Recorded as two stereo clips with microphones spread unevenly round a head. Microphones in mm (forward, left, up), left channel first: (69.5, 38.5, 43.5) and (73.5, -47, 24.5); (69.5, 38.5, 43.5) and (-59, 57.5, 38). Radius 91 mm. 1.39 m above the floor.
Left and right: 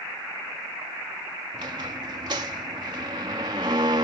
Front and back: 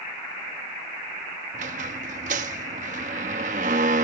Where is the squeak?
155° right.